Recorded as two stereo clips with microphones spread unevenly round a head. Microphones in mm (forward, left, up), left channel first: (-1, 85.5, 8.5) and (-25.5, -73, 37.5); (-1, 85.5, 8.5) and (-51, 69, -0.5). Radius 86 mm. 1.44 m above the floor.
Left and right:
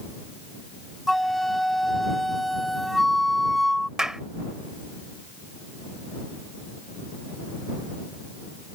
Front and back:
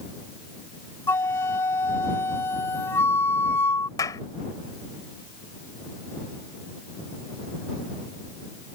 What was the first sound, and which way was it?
A flute, 15° right.